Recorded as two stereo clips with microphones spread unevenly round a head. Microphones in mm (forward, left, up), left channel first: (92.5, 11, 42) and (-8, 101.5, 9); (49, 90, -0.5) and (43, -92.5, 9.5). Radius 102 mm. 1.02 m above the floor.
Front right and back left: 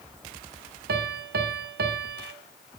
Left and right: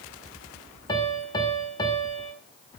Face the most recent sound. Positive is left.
turn(degrees=160)